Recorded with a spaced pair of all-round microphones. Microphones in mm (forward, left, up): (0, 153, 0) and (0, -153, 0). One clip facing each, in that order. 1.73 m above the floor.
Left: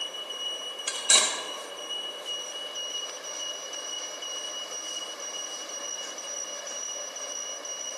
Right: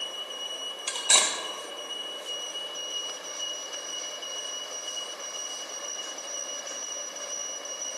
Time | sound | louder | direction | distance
0.9 | cutlery clinking | even | 15° left (ahead or behind) | 0.9 m